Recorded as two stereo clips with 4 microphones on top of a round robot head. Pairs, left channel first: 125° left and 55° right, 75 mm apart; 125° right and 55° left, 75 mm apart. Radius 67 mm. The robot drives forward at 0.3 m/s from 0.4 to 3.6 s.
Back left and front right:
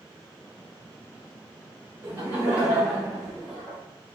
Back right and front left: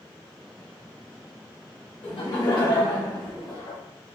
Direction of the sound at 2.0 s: 115° right.